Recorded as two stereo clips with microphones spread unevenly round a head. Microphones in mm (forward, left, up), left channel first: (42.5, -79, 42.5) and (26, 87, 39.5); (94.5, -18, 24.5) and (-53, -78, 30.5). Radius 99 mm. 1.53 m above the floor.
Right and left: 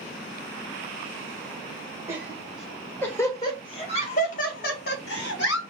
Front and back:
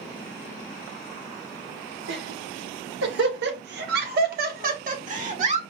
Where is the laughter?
175° left, 1.5 m; by 5.6 s 115° right, 1.9 m.